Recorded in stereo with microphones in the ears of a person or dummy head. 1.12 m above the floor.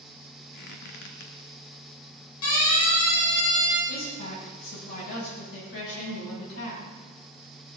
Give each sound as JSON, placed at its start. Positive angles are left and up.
{"t": 0.5, "sound": "a squeak", "side_deg": 65, "distance_m": 1.4}
{"t": 2.4, "sound": "a siren", "side_deg": 80, "distance_m": 9.0}
{"t": 3.9, "sound": "a woman speaking", "side_deg": 65, "distance_m": 8.0}